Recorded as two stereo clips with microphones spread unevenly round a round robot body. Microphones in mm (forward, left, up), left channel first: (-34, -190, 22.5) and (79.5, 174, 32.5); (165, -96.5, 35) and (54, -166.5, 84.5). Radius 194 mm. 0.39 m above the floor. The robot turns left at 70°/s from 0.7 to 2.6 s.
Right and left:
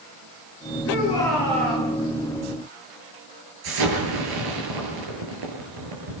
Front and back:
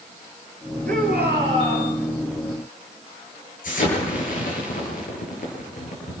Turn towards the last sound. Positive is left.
turn(degrees=40)